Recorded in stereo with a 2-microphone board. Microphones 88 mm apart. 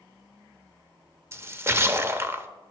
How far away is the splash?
About 0.6 m.